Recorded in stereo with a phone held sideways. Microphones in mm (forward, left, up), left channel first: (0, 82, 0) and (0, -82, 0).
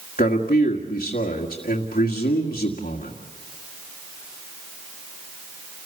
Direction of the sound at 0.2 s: 65° left (ahead or behind).